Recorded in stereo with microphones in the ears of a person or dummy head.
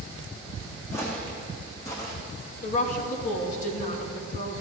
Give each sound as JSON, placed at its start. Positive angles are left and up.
{"t": 0.9, "sound": "footsteps", "side_deg": 15, "distance_m": 3.5}
{"t": 2.6, "sound": "a woman speaking", "side_deg": 50, "distance_m": 2.5}